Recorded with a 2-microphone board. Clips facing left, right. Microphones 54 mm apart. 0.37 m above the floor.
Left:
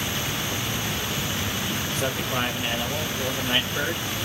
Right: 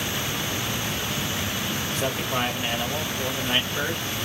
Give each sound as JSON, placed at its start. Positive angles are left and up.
{"t": 1.9, "sound": "a man speaking", "side_deg": 0, "distance_m": 1.3}